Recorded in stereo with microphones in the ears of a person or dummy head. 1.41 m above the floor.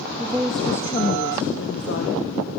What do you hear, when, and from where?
0.2 s a woman speaking: 15° right (ahead or behind), 1.8 m; by 2.5 s 80° left, 3 m